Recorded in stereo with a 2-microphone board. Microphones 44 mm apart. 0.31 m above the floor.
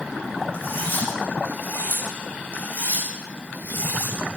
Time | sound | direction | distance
0.5 | cutlery clinking | 55° left (ahead or behind) | 9 m